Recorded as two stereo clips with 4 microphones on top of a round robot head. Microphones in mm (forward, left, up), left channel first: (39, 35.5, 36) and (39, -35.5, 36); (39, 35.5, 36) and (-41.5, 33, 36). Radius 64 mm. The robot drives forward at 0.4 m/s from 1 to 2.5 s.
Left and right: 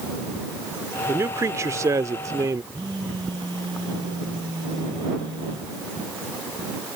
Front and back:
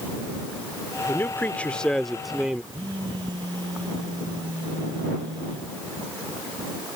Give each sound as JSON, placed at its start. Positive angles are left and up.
{"t": 1.1, "sound": "a man speaking", "azimuth_deg": -55}
{"t": 2.7, "sound": "a phone buzzing", "azimuth_deg": -130}